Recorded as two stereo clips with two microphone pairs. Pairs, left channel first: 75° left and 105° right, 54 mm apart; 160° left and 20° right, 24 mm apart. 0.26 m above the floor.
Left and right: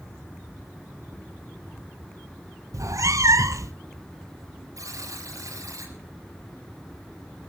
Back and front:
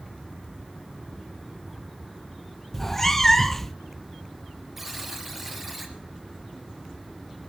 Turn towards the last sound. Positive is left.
turn(degrees=-100)